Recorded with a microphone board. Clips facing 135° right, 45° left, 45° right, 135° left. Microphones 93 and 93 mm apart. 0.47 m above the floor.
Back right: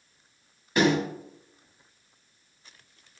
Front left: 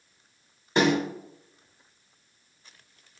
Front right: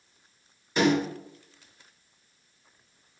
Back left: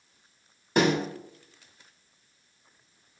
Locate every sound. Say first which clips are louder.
0.8 s a snare drum: even, even; 105° left, 2.5 m